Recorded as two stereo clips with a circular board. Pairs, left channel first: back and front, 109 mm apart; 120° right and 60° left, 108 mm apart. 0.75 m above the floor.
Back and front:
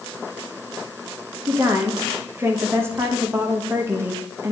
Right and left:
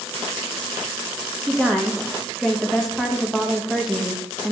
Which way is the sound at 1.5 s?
30° right.